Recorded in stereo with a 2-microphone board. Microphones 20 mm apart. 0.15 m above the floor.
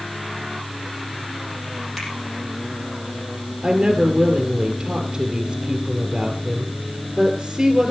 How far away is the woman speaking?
About 2.5 m.